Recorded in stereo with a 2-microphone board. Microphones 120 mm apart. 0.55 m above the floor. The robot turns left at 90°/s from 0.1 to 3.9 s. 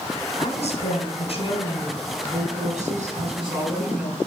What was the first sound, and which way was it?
A woman speaking, 135° left.